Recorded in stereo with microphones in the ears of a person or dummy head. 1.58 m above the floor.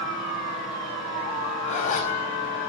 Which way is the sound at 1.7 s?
40° left (ahead or behind).